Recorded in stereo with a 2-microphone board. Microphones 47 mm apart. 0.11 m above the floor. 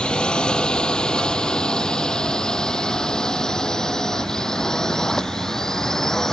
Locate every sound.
0.0 s a drone: 15° left (ahead or behind); by 6.3 s 10° left (ahead or behind)